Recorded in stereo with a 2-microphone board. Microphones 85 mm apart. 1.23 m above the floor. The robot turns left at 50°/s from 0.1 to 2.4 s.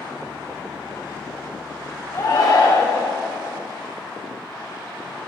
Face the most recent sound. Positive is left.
turn(degrees=55)  # may be behind; listen again after turning